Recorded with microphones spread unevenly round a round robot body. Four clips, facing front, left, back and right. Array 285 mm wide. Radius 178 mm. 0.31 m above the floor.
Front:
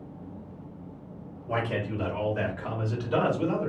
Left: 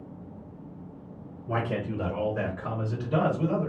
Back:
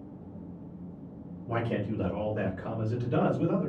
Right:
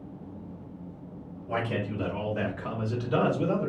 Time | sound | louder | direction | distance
1.5 | a man speaking | left 1 dB, front 1 dB | 160° left | 1.7 m